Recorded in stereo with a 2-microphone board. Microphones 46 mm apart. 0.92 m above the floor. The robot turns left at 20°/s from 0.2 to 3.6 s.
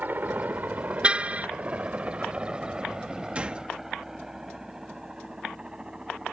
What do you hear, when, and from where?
0.0 s a helicopter: 40° right (ahead or behind); by 6.3 s 20° right (ahead or behind)
1.0 s a car horn: 25° right (ahead or behind); by 1.5 s 30° right (ahead or behind)
3.4 s a gunshot: 25° right (ahead or behind); by 3.7 s 20° right (ahead or behind)